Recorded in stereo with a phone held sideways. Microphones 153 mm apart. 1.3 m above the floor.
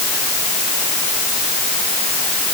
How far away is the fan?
No fan in this recording.